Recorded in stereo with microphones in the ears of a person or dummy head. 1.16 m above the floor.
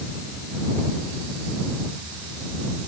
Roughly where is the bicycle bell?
I don't hear a bicycle bell.